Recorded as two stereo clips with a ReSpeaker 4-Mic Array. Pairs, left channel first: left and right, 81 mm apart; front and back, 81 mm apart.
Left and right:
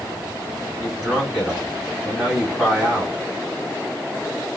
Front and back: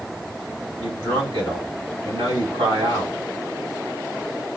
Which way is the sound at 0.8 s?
175° left.